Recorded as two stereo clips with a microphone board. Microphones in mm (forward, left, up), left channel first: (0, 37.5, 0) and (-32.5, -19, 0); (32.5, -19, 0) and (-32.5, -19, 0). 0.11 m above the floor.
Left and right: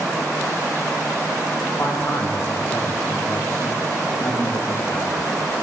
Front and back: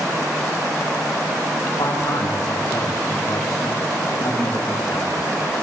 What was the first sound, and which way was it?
A man speaking, 5° left.